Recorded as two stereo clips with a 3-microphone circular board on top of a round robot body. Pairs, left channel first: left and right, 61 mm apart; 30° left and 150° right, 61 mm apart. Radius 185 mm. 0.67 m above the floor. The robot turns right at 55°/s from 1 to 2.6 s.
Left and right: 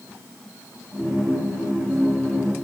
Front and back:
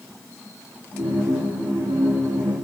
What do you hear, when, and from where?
Only background noise.